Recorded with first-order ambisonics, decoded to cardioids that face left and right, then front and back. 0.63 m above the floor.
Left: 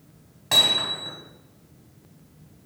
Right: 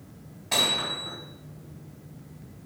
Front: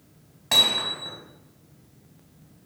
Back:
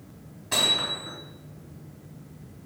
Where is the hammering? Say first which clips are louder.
Left 5 dB, front 3 dB; 35° left, 3.5 m.